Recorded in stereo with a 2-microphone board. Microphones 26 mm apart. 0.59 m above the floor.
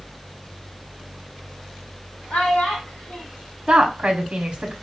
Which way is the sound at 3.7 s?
40° right (ahead or behind).